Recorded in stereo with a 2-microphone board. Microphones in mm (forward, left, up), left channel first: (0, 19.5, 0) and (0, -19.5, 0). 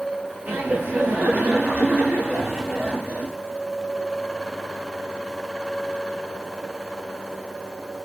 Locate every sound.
0.5 s laughter: 55° right (ahead or behind), 1.9 m